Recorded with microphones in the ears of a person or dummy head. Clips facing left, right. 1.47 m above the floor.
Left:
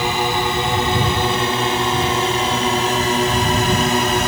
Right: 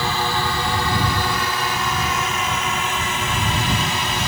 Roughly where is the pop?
No pop in this recording.